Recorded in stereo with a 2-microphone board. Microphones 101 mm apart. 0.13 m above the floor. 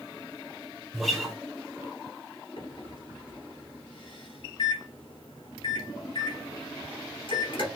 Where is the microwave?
55° left (ahead or behind), 2.5 m.